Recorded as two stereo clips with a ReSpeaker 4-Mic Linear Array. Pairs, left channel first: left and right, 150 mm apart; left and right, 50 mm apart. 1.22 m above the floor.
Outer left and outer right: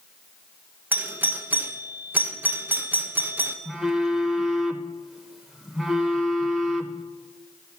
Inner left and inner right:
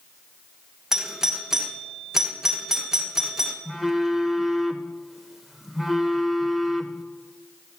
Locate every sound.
0.9 s a doorbell: 10° right (ahead or behind), 0.9 m
3.6 s a phone buzzing: centre (ahead or behind), 0.8 m